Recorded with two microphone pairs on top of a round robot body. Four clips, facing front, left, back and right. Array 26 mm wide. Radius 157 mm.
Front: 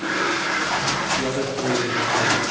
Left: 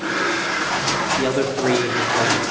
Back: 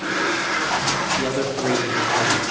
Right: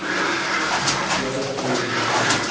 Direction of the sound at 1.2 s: 100° left.